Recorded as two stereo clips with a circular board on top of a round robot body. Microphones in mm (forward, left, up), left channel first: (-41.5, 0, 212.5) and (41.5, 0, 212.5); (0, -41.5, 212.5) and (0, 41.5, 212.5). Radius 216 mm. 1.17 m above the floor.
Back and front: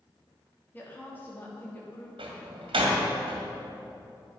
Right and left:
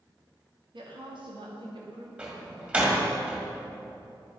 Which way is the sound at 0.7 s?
110° left.